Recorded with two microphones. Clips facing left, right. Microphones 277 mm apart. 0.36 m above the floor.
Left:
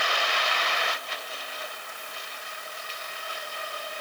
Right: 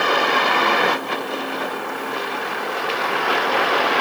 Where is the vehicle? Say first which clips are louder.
Right 13 dB; 65° right (ahead or behind); by 4.0 s 80° right.